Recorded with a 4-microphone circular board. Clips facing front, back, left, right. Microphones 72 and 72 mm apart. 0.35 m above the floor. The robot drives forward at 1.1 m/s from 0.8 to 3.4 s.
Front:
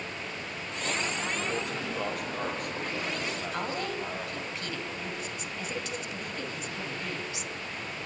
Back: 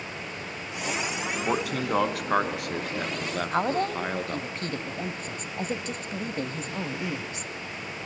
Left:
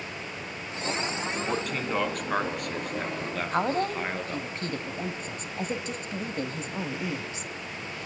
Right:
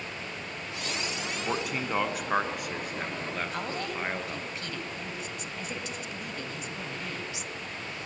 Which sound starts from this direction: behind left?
A woman speaking, at 3.5 s.